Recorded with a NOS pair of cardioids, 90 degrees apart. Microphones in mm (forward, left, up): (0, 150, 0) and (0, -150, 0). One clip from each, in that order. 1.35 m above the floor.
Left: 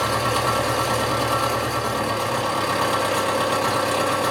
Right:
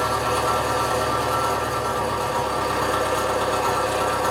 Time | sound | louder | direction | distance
0.0 | an engine running | even | 55° left | 1.3 m